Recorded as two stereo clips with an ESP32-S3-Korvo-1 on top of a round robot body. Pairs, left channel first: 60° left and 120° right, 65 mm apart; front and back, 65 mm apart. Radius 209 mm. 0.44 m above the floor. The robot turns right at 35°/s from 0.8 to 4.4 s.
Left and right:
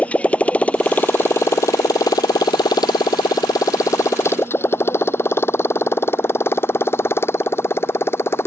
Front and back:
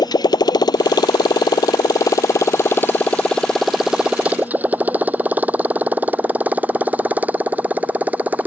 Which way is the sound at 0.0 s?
10° right.